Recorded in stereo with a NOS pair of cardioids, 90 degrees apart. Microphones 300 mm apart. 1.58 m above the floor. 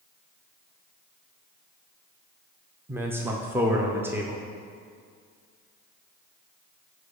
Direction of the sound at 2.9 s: 10° right.